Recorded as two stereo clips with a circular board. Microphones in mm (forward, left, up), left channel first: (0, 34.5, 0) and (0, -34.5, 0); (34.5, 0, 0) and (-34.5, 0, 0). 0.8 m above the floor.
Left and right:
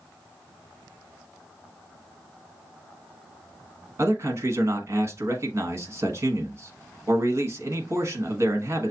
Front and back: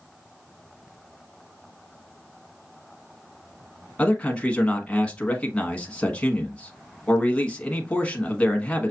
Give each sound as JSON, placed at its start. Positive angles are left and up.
{"t": 4.0, "sound": "a man speaking", "azimuth_deg": -65, "distance_m": 1.1}